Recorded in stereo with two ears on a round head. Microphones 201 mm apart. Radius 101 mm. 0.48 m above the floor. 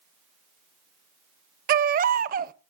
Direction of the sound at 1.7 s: 40° right (ahead or behind).